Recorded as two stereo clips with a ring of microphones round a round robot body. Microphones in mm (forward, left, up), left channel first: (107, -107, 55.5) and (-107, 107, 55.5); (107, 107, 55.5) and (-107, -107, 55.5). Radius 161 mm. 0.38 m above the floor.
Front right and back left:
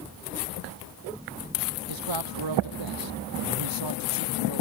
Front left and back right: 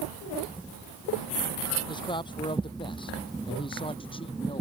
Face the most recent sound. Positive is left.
turn(degrees=120)